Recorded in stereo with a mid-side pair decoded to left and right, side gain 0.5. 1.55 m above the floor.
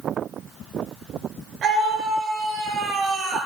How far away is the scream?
About 6.5 m.